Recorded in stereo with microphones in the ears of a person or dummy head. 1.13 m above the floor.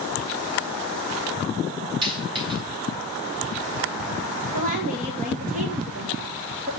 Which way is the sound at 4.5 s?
35° right (ahead or behind).